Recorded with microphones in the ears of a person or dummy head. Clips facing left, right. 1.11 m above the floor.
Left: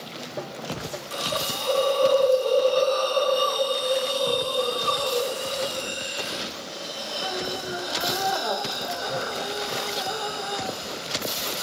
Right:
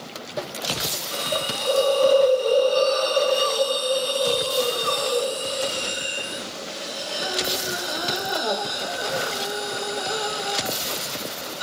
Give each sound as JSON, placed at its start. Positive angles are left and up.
{"t": 1.1, "sound": "a hiss", "side_deg": -20, "distance_m": 0.6}